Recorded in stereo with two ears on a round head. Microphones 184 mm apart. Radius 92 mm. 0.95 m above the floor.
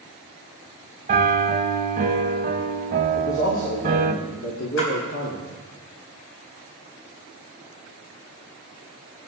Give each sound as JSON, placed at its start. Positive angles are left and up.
{"t": 1.1, "sound": "a piano", "side_deg": -40, "distance_m": 1.0}
{"t": 3.1, "sound": "a man speaking", "side_deg": 60, "distance_m": 2.5}
{"t": 4.8, "sound": "a splash", "side_deg": 65, "distance_m": 4.5}